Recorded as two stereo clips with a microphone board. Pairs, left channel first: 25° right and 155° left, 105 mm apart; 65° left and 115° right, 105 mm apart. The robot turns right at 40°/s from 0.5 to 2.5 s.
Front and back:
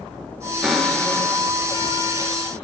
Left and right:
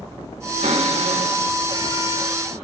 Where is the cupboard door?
115° right, 2.5 m; by 2.5 s 40° right, 2.5 m.